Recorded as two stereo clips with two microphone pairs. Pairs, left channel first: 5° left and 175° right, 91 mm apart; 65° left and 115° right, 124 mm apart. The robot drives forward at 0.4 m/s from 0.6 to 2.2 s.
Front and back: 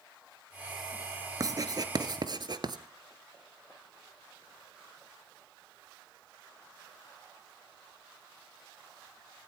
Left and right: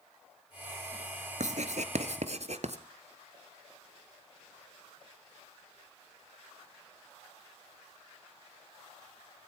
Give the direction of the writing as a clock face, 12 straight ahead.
4 o'clock.